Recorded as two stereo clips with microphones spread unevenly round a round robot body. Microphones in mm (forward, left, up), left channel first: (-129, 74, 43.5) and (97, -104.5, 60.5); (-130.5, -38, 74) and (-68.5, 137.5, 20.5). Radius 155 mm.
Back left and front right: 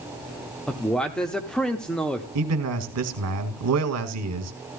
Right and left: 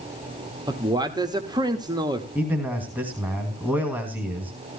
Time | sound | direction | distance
0.7 | a man speaking | 60° left | 1.2 m
2.4 | a man speaking | 5° right | 2 m